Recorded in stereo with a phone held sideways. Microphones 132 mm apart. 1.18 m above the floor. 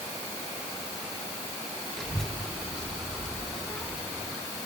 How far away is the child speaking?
About 2.5 m.